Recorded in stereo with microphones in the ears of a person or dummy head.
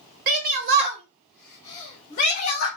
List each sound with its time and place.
0.3 s a shout: 50° right (ahead or behind), 0.9 m; by 2.7 s 45° left (ahead or behind), 1.2 m